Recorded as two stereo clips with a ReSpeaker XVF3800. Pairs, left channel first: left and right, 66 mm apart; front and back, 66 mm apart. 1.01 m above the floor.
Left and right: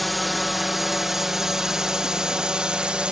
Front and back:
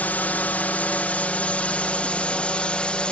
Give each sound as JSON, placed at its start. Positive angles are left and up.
{"t": 0.0, "sound": "a drone", "azimuth_deg": 0}